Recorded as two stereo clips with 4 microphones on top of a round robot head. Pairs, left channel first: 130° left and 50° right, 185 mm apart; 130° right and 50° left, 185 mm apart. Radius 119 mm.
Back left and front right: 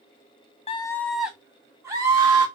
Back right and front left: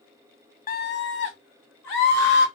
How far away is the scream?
About 0.5 m.